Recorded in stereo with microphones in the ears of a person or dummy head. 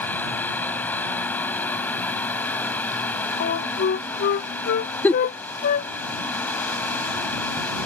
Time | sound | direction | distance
0.0 | a fan | 10° left (ahead or behind) | ?
3.4 | a flute | 55° left (ahead or behind) | ?
5.0 | a giggle | 15° left (ahead or behind) | ?